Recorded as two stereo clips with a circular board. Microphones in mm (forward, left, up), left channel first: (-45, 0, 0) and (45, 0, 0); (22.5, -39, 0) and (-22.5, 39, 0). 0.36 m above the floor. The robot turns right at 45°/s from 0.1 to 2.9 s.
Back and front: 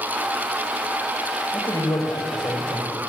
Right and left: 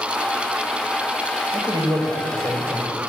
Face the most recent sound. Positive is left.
turn(degrees=-170)